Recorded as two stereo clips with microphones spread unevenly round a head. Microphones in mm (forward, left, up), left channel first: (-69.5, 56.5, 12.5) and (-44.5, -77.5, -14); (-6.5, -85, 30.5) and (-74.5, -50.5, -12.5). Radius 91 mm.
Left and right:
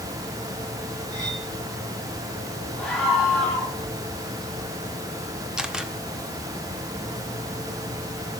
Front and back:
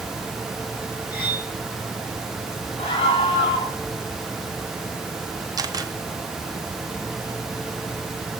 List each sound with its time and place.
1.1 s cutlery clinking: 140° right, 5.5 m
2.8 s a scream: 10° left, 7.5 m
5.6 s a camera shutter: 165° right, 1.4 m